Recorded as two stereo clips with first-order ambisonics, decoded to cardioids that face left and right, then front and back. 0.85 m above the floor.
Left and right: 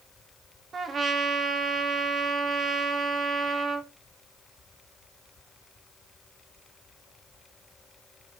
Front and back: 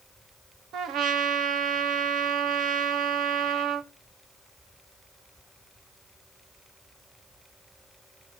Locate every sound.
0.7 s a trumpet: 150° right, 1.4 m